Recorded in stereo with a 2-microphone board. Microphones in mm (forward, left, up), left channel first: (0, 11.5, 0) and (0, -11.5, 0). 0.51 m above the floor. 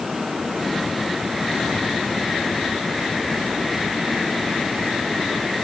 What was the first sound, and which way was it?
Only background noise.